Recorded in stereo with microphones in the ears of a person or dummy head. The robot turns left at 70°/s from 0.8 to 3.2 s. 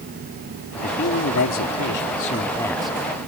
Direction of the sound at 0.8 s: 140° left.